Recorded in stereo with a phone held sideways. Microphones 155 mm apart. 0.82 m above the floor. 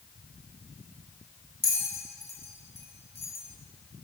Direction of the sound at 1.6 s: 75° left (ahead or behind).